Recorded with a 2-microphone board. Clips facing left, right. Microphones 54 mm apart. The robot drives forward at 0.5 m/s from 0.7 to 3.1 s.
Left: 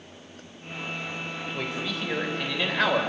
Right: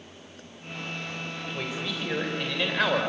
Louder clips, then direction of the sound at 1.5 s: Left 1 dB; centre (ahead or behind).